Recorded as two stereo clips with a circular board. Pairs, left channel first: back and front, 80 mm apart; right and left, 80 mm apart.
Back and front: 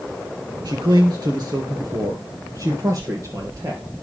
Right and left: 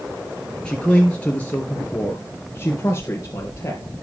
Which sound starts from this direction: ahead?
A man speaking, at 0.7 s.